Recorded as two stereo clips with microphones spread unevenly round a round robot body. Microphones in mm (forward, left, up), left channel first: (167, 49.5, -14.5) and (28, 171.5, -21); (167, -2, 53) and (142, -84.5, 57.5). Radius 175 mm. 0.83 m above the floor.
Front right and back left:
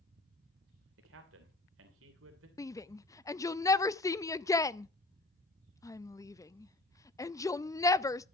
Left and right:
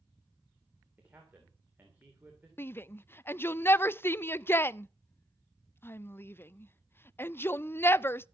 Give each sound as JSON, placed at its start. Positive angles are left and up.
{"t": 1.0, "sound": "a man speaking", "azimuth_deg": 170, "distance_m": 2.5}
{"t": 2.6, "sound": "a shout", "azimuth_deg": 25, "distance_m": 0.5}